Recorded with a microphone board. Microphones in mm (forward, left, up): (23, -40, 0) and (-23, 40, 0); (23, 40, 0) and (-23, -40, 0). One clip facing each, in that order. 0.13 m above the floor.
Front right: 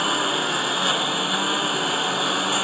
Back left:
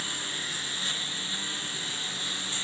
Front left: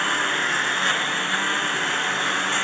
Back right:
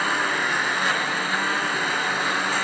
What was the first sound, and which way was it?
A lawn mower, 35° right.